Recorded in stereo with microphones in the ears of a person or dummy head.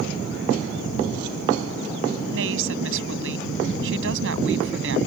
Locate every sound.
2.3 s a woman speaking: 85° right; by 5.0 s 80° right